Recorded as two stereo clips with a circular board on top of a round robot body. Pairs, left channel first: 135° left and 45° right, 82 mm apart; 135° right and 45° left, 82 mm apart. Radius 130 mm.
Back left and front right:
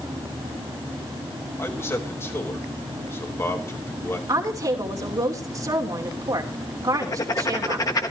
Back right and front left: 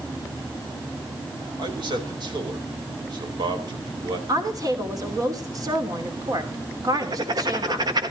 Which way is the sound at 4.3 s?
Straight ahead.